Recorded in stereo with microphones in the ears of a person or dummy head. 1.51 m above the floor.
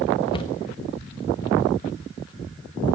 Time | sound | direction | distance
0.3 | a cupboard door | 25° left (ahead or behind) | 1.3 m